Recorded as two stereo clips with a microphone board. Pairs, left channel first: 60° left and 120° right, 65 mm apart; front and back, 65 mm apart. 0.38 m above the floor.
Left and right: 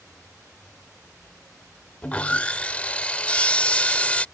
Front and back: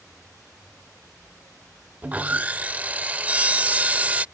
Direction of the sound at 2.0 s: 125° left.